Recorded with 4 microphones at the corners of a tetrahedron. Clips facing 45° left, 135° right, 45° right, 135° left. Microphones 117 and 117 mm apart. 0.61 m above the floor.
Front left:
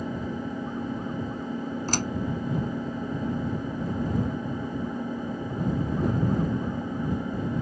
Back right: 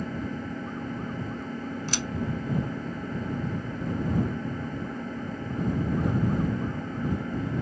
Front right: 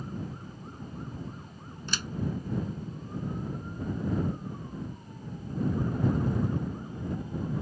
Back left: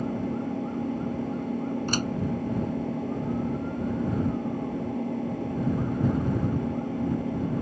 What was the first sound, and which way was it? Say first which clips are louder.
An engine running: front left 1 dB, back left 11 dB; 120° left.